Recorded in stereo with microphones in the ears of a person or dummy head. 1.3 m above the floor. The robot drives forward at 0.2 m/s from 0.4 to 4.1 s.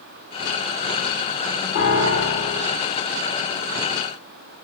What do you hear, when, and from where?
1.8 s a piano: 70° left (ahead or behind), 3.5 m; by 2.7 s 65° left (ahead or behind), 3.5 m